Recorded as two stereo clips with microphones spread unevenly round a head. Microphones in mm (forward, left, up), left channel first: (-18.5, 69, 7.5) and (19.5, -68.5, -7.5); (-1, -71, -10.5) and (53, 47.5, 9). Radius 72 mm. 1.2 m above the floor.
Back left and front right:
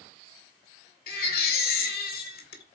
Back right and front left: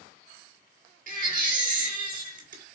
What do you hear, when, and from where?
1.1 s a baby crying: 90° left, 1.9 m